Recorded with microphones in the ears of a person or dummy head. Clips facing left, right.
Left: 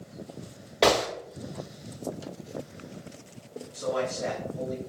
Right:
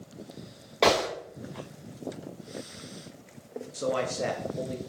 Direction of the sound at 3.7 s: 50° right (ahead or behind).